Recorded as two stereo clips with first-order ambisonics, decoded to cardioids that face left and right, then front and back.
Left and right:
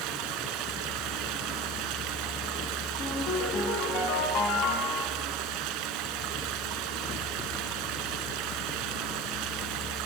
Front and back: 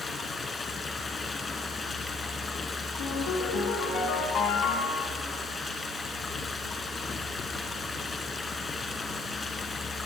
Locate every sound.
0.0 s running water: 75° right, 1.7 m
3.0 s a ringtone: 50° left, 3.5 m